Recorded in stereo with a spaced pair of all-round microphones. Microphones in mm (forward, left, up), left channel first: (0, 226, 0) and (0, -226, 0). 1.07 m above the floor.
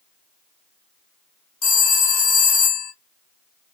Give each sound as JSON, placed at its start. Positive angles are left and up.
{"t": 1.6, "sound": "a phone ringing", "side_deg": 70, "distance_m": 0.7}